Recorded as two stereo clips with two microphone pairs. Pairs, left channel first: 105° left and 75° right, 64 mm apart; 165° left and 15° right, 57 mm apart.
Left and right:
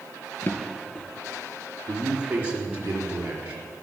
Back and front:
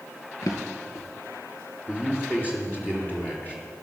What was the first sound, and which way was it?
A drawer, 160° left.